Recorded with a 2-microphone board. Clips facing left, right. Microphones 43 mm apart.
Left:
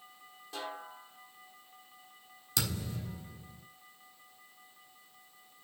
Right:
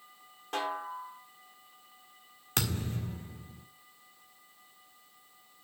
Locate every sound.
0.5 s a snare drum: 60° right (ahead or behind), 1.4 m
2.6 s a thud: 50° right (ahead or behind), 1.8 m